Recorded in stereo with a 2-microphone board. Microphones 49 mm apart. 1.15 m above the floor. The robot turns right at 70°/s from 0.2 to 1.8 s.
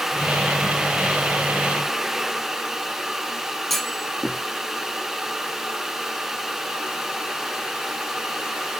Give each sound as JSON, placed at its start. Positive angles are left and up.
{"t": 3.7, "sound": "a clunk", "side_deg": 0, "distance_m": 0.6}